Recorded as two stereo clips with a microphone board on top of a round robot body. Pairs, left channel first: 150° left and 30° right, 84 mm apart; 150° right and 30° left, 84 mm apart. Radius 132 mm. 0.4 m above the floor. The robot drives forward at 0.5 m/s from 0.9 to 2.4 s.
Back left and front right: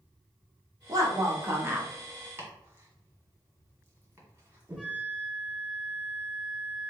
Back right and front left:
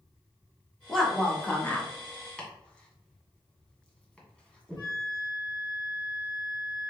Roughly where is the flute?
Behind right.